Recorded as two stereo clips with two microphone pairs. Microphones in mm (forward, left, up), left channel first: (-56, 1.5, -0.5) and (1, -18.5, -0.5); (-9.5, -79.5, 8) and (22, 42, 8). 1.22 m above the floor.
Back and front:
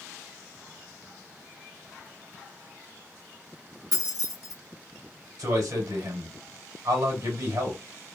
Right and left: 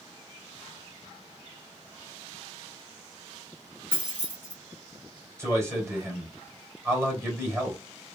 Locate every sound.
3.9 s keys jangling: straight ahead, 1.8 m
5.4 s a man speaking: 5° left, 3 m